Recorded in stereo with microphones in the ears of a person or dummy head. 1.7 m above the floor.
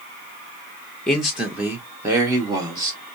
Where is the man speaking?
5° left (ahead or behind), 0.8 m; by 3.0 s 20° right (ahead or behind), 1.7 m.